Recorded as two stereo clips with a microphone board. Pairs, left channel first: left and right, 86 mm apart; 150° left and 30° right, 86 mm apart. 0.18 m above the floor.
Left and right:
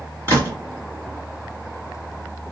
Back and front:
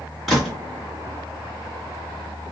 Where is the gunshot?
125° right, 1.9 m.